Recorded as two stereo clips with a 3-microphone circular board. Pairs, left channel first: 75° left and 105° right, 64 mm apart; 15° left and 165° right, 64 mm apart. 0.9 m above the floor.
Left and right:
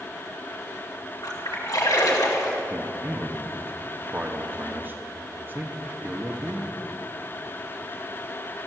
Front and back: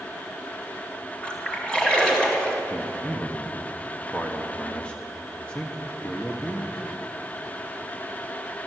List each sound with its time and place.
1.2 s a splash: 90° left, 3.5 m
2.7 s a man speaking: 55° right, 1.3 m